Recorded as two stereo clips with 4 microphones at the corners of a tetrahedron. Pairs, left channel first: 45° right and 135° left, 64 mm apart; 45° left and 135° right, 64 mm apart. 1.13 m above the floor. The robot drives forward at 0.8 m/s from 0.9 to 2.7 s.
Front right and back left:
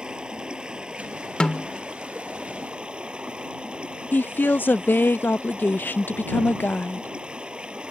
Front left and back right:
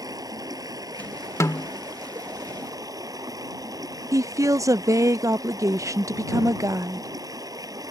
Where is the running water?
150° right.